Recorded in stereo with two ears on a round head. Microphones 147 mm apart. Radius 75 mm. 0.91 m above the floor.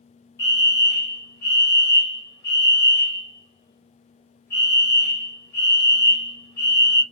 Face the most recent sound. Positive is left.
turn(degrees=15)  # may be behind; listen again after turning